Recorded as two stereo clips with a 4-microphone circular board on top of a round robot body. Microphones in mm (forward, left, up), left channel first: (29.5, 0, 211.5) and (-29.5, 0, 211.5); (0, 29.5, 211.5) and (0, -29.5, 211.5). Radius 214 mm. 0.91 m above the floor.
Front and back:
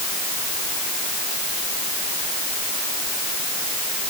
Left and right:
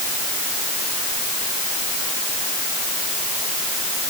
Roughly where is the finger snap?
I don't hear a finger snap.